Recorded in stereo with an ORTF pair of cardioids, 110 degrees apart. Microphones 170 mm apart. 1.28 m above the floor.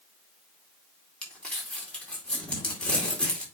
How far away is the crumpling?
About 4 m.